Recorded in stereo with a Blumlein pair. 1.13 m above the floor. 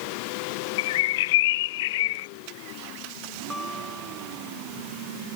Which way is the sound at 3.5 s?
10° left.